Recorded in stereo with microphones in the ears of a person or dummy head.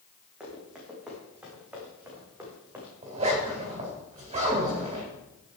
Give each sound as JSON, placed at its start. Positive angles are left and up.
{"t": 0.4, "sound": "running footsteps", "side_deg": 0, "distance_m": 5.0}
{"t": 3.0, "sound": "a zipper", "side_deg": -30, "distance_m": 4.0}